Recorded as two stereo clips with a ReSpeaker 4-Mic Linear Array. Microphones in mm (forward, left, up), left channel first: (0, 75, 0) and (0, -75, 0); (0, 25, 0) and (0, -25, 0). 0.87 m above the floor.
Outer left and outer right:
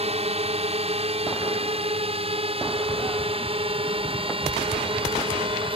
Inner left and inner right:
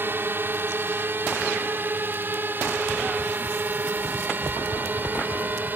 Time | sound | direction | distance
0.0 | a drone | 45° right (ahead or behind) | ?